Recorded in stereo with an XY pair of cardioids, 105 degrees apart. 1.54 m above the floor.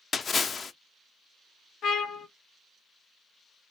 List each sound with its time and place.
0.1 s a splash: 45° left, 0.6 m
1.8 s a trumpet: 65° left, 0.6 m